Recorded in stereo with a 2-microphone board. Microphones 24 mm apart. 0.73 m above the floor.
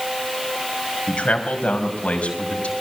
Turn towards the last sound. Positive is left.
turn(degrees=60)  # may be behind; listen again after turning